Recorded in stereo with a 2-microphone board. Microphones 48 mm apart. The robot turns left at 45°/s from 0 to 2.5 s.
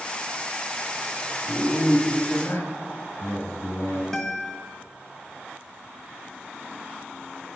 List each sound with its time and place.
1.5 s a man speaking: 125° left, 1.0 m; by 4.0 s 80° left, 1.0 m
4.1 s a guitar: 5° left (ahead or behind), 0.8 m